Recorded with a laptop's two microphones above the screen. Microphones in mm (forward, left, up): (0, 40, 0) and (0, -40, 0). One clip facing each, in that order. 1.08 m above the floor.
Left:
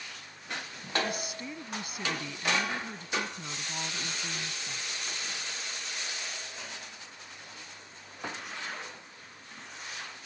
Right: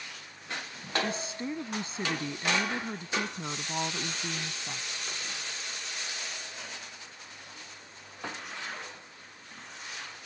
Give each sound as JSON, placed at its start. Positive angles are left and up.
{"t": 1.0, "sound": "a woman speaking", "side_deg": -30}